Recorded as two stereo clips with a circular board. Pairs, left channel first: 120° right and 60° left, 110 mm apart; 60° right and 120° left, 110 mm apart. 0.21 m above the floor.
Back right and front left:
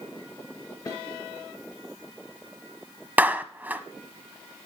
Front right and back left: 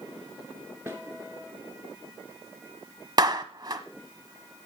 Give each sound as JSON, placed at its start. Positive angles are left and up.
{"t": 0.9, "sound": "a snare drum", "azimuth_deg": -175, "distance_m": 2.5}
{"t": 3.2, "sound": "a clap", "azimuth_deg": 125, "distance_m": 1.0}